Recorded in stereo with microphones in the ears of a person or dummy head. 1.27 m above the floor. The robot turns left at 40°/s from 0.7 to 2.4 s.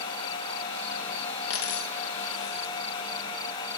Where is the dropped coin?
40° left (ahead or behind), 0.7 m; by 2.8 s 45° left (ahead or behind), 0.7 m.